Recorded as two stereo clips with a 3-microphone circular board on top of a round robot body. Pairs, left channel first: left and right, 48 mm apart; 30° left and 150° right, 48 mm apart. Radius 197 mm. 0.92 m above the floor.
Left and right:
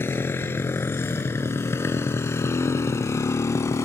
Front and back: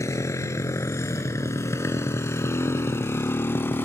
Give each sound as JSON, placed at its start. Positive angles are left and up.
{"t": 0.0, "sound": "a motorcycle", "azimuth_deg": 50}